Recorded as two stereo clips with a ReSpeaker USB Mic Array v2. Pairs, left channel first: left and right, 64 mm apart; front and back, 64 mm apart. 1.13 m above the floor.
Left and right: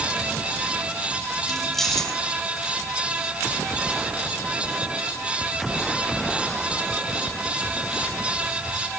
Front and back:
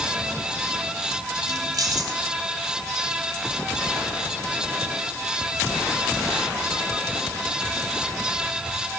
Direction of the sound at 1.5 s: 175° left.